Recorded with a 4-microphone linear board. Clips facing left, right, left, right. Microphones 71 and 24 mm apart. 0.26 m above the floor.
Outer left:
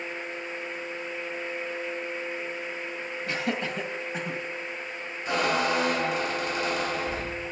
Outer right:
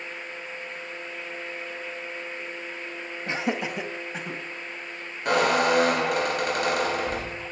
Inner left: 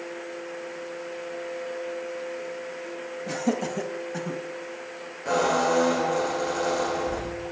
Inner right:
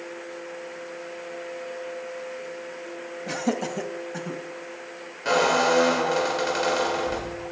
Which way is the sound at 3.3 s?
25° right (ahead or behind).